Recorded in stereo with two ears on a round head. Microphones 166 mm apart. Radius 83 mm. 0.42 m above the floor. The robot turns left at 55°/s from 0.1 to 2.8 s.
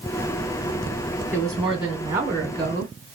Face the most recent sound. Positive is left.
turn(degrees=-65)